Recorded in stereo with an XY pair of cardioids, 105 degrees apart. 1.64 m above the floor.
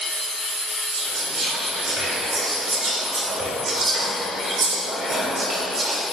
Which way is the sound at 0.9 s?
45° right.